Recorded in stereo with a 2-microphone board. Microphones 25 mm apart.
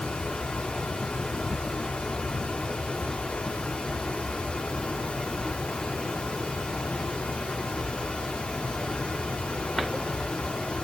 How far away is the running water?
About 1.9 m.